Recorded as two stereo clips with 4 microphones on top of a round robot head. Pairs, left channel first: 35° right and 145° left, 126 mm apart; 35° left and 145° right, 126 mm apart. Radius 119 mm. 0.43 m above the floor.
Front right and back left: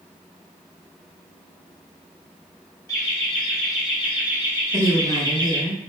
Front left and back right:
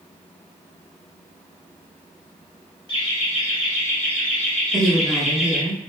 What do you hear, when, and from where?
2.9 s laughter: 35° left, 1.6 m; by 5.6 s 140° left, 1.6 m
4.7 s a woman speaking: 85° right, 1.6 m